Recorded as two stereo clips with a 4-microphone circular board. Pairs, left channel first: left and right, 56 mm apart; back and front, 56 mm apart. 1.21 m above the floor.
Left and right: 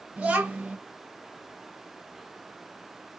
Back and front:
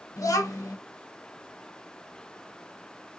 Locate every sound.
0.2 s a child speaking: 160° right, 0.9 m